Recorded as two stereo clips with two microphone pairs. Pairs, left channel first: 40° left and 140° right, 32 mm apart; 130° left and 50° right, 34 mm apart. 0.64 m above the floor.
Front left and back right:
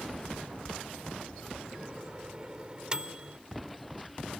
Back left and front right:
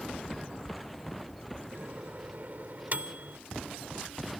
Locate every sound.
1.7 s a microwave: 75° right